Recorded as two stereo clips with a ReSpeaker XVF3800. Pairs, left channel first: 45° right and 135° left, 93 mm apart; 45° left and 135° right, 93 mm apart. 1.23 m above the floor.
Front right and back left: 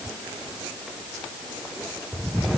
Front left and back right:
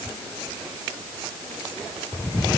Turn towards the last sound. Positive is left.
No sound to turn to.